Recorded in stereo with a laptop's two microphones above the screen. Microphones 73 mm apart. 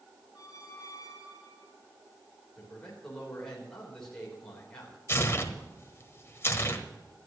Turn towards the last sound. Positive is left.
turn(degrees=35)  # may be behind; listen again after turning